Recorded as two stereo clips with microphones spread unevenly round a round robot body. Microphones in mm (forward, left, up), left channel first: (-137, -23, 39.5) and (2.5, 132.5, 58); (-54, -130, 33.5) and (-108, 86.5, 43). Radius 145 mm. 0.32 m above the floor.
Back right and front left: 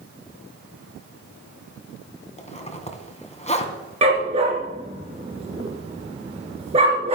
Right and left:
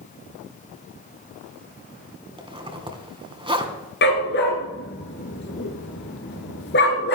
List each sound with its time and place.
2.4 s a zipper: 170° left, 2.5 m
4.0 s a dog barking: 20° right, 1.5 m